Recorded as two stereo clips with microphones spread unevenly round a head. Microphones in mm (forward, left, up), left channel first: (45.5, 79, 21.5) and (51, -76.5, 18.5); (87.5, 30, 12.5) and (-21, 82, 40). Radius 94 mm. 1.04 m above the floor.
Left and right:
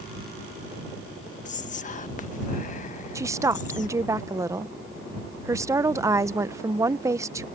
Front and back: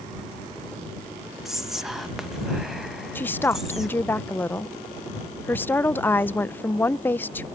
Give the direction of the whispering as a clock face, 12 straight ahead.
10 o'clock.